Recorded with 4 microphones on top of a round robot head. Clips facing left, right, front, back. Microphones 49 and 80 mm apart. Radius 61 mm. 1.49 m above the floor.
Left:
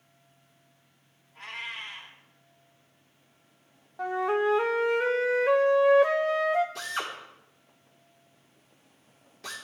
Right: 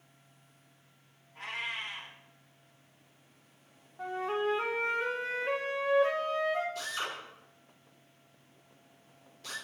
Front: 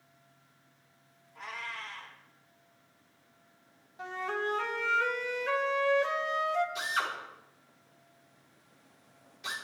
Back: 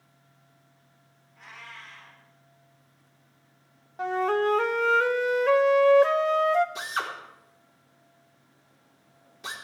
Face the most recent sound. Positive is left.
turn(degrees=130)